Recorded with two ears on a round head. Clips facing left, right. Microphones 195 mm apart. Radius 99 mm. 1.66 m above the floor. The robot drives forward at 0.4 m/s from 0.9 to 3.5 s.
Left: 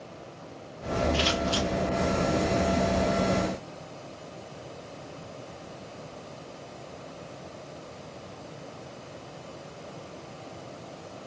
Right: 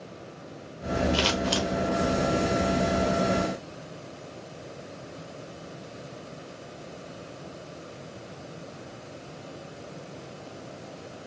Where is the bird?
I don't hear a bird.